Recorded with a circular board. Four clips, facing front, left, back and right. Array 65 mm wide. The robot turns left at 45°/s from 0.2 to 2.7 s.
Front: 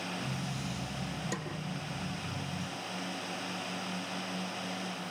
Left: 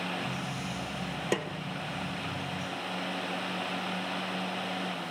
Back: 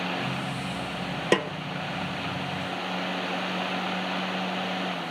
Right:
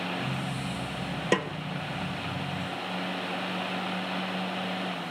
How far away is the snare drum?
About 0.6 m.